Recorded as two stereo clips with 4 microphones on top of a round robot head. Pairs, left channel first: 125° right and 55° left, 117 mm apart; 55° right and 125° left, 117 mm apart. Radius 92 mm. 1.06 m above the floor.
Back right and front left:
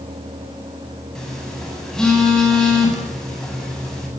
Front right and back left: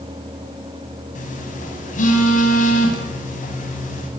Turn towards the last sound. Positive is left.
turn(degrees=-40)